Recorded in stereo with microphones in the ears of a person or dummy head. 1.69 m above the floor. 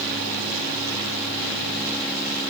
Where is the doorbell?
I don't hear a doorbell.